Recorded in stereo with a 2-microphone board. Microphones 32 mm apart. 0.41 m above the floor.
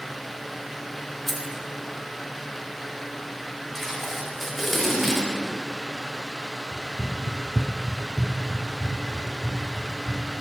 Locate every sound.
1.3 s keys jangling: 10° left (ahead or behind), 0.8 m
3.8 s tape being pulled: 10° right (ahead or behind), 1.5 m
6.7 s running footsteps: 25° left (ahead or behind), 1.4 m; by 10.2 s 50° right (ahead or behind), 4 m